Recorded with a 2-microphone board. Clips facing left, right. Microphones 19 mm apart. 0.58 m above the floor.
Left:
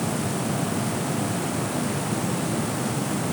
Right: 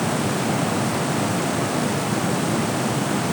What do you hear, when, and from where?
Only background noise.